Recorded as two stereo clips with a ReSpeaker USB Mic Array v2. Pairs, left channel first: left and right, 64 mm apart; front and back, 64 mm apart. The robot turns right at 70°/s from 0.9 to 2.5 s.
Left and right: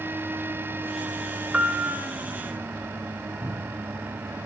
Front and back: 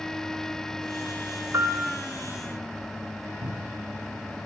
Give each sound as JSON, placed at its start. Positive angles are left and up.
{"t": 1.5, "sound": "a piano", "azimuth_deg": -160, "distance_m": 1.4}
{"t": 3.4, "sound": "a cupboard door", "azimuth_deg": -160, "distance_m": 2.5}